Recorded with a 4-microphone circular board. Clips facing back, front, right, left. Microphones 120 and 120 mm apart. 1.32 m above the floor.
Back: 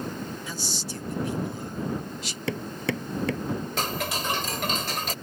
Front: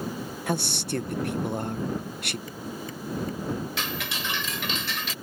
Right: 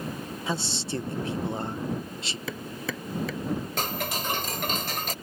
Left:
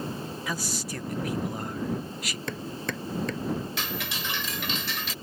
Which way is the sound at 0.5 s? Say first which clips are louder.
Front 7 dB, right 5 dB; 30° right.